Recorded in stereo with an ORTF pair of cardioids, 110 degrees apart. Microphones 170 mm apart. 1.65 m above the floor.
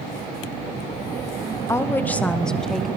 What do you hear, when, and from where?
1.7 s a woman speaking: 15° left, 1.7 m; by 2.9 s straight ahead, 3 m